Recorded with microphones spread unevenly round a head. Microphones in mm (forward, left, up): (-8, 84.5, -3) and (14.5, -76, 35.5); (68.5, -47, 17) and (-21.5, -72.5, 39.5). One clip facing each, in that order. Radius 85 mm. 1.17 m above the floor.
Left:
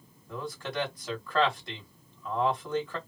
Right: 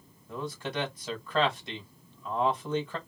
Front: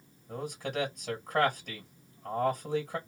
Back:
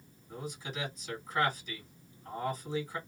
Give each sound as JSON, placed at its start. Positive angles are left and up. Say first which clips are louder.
{"t": 0.3, "sound": "a man speaking", "louder": "right 1 dB, front 6 dB", "azimuth_deg": 10, "distance_m": 1.8}